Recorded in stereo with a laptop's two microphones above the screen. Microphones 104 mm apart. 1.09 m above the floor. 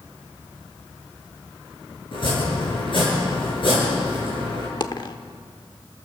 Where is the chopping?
55° left (ahead or behind), 8 m.